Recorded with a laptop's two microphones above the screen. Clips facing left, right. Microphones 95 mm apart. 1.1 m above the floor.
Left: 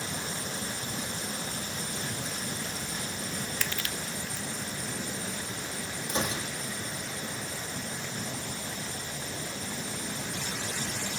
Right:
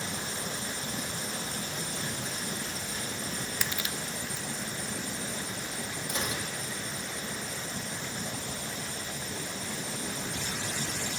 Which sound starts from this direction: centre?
Crushing, at 3.6 s.